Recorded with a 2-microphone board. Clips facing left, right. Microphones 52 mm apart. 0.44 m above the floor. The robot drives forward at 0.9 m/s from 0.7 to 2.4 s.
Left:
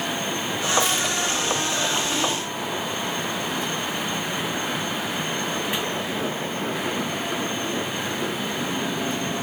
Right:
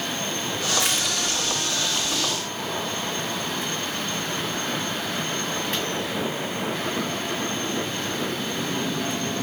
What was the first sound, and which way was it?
Crushing, 65° right (ahead or behind).